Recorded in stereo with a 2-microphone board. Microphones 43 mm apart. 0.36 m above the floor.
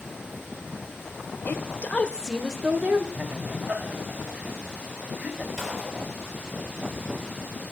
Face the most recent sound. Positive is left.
turn(degrees=15)  # may be behind; listen again after turning